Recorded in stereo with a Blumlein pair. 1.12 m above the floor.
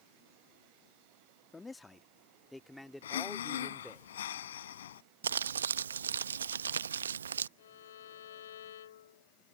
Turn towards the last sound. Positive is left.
turn(degrees=60)